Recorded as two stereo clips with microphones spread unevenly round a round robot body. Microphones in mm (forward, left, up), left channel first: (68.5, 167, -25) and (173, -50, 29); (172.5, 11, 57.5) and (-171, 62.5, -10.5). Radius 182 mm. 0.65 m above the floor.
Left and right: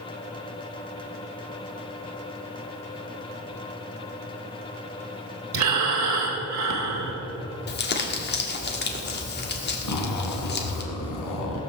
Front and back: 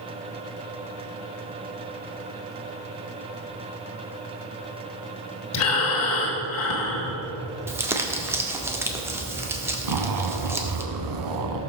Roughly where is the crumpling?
Left.